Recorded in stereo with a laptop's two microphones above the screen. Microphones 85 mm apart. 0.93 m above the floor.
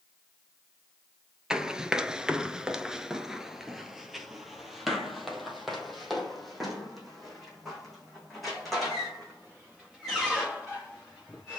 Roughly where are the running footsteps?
Centre.